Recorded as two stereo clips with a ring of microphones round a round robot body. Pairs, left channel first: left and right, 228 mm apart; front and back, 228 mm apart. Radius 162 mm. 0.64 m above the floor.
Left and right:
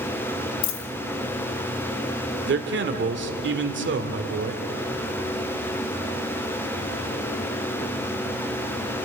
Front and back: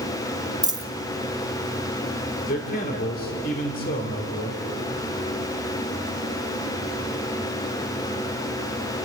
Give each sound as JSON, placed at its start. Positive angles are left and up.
{"t": 0.6, "sound": "a dropped coin", "azimuth_deg": 105, "distance_m": 1.8}
{"t": 2.5, "sound": "a man speaking", "azimuth_deg": -60, "distance_m": 2.0}